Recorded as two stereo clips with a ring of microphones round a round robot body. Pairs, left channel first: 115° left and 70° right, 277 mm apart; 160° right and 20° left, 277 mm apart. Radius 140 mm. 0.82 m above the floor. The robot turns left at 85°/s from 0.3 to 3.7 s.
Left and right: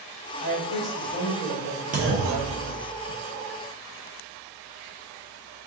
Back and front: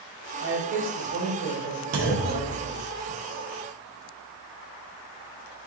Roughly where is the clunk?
Ahead.